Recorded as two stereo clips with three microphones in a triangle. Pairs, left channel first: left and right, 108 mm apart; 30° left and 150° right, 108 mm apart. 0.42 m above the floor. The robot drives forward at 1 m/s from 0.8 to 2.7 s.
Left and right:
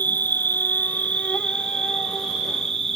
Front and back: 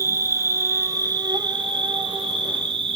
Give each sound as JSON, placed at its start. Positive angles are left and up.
{"t": 0.0, "sound": "an insect", "azimuth_deg": 155, "distance_m": 0.7}